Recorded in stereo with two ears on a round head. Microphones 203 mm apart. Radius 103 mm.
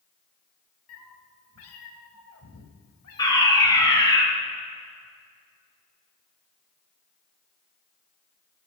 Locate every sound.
0.9 s a cat meowing: 75° left (ahead or behind), 1.5 m
3.2 s a fire alarm: 20° left (ahead or behind), 3 m